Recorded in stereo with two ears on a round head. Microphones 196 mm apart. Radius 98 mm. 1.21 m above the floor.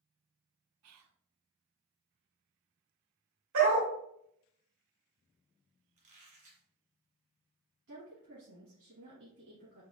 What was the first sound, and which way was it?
Whispering, 80° right.